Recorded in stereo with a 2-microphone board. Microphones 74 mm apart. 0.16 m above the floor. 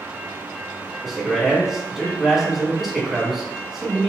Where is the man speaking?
Centre (ahead or behind), 1.3 m.